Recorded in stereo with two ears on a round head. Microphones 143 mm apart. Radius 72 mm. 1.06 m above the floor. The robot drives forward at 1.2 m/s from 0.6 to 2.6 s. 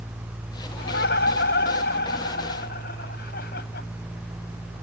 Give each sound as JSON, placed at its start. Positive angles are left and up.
{"t": 0.8, "sound": "laughter", "side_deg": 85}